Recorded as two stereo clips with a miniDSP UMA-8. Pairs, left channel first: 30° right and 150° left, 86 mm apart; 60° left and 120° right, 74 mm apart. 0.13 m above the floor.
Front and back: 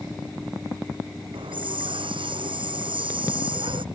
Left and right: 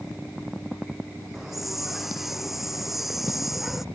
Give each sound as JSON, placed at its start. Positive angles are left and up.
{"t": 1.3, "sound": "a hiss", "azimuth_deg": 155}